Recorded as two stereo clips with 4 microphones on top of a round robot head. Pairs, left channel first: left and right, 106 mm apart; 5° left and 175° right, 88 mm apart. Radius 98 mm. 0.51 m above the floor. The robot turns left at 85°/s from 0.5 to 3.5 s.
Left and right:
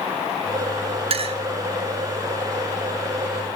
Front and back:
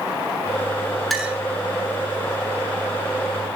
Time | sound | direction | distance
1.1 | a clink | 85° right | 1.2 m